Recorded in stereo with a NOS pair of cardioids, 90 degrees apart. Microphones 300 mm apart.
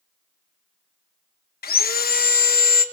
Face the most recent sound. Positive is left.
turn(degrees=30)